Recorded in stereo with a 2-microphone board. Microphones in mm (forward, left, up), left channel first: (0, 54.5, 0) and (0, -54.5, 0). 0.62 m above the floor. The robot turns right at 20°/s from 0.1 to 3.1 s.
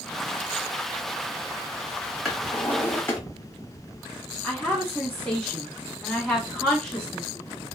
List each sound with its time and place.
2.2 s a drawer: 5° left (ahead or behind), 1.1 m; by 3.2 s 20° left (ahead or behind), 1.1 m
4.4 s a woman speaking: 5° left (ahead or behind), 1.3 m